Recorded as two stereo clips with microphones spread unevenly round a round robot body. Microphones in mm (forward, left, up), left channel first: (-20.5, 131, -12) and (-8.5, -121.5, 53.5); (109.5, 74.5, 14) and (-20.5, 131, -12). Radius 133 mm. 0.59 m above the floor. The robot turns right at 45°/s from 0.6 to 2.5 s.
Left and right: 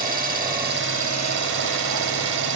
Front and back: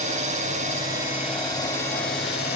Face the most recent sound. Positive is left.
turn(degrees=-60)